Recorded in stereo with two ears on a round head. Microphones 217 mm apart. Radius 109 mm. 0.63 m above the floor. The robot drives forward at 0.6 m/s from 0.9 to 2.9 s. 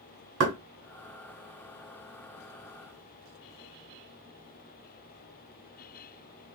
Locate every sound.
0.4 s knocking: 55° right (ahead or behind), 1.5 m